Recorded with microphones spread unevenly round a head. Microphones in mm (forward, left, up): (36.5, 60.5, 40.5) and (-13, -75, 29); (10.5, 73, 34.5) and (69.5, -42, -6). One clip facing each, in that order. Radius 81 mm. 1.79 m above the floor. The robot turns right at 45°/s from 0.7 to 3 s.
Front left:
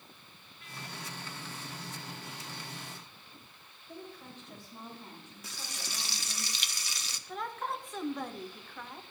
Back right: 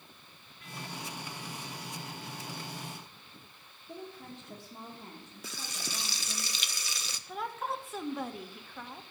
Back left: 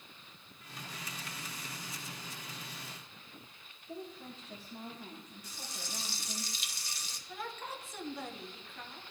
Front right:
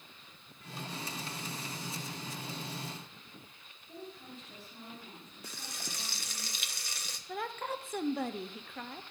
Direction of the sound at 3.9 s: Straight behind.